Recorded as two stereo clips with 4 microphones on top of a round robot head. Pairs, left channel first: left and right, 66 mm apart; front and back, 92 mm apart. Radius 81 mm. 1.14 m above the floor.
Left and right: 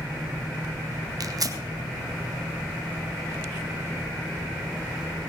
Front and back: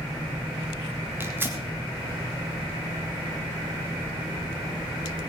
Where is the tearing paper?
115° right, 1.9 m.